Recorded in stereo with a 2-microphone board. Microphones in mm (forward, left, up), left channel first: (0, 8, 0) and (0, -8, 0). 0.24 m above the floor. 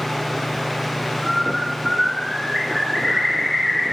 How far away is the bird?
About 2 m.